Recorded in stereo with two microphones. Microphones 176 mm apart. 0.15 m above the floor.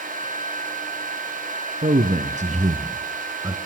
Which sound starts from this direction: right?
A man speaking, at 1.8 s.